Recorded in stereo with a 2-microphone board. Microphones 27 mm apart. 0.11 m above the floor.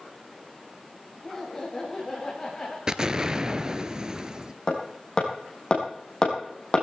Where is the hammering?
35° left (ahead or behind), 3.5 m.